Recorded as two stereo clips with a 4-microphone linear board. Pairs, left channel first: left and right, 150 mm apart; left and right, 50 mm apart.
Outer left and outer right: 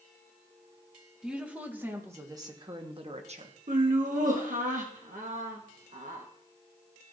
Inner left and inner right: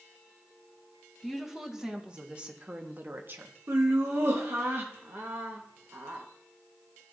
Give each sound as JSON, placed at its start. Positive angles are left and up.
{"t": 1.2, "sound": "a woman speaking", "side_deg": -5, "distance_m": 1.8}
{"t": 3.7, "sound": "laughter", "side_deg": -60, "distance_m": 1.3}